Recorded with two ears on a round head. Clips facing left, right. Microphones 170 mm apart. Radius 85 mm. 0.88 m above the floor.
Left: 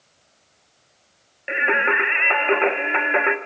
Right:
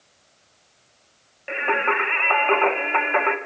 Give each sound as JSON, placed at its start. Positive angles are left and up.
{"t": 1.5, "sound": "singing", "side_deg": 20, "distance_m": 1.3}